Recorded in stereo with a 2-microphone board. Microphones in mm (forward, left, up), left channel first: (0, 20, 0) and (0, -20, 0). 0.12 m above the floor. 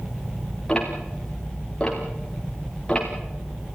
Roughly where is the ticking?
Centre.